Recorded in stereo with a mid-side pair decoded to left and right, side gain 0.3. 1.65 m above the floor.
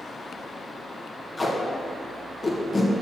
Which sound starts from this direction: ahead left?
Tape being pulled, at 1.4 s.